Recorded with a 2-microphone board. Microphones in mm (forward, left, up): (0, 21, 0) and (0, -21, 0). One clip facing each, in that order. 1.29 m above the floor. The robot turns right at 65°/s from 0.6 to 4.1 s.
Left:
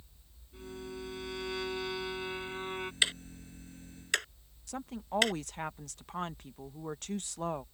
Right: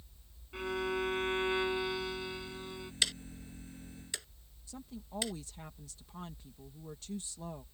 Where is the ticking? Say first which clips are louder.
Left 2 dB; 25° left (ahead or behind); by 5.3 s 70° left (ahead or behind).